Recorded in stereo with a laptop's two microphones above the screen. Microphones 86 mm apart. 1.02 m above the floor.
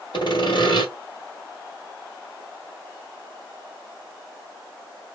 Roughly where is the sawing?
Left.